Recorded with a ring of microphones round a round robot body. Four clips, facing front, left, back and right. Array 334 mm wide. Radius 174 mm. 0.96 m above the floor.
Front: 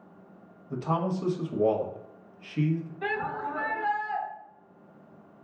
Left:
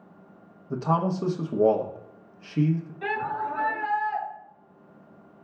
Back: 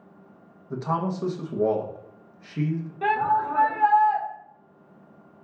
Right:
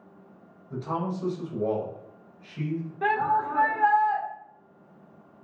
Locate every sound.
0.7 s a man speaking: 100° left, 0.9 m
3.0 s a shout: 135° right, 2 m